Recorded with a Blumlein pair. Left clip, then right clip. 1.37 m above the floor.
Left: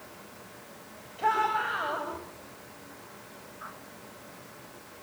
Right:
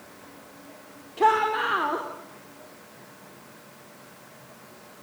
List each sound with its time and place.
1.2 s a shout: 45° right, 5 m